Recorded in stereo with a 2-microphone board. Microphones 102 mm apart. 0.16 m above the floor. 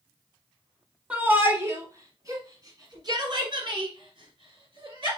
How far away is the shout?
About 1.2 m.